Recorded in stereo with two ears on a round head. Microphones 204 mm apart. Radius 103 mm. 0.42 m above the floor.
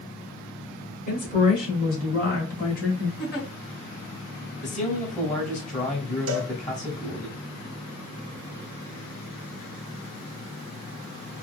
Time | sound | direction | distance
1.1 | a woman speaking | 40° left (ahead or behind) | 2 m
3.2 | a giggle | 45° left (ahead or behind) | 2.5 m
4.6 | a man speaking | 35° left (ahead or behind) | 2 m
6.3 | a cowbell | 60° right (ahead or behind) | 0.8 m